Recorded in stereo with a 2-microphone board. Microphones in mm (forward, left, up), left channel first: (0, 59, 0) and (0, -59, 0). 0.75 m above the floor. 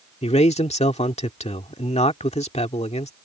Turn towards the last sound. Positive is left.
turn(degrees=65)  # may be behind; listen again after turning